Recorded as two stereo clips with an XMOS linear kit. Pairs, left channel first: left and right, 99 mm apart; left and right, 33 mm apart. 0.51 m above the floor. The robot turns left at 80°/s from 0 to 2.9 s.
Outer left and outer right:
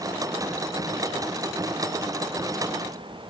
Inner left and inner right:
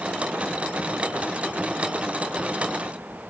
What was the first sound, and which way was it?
Only background noise.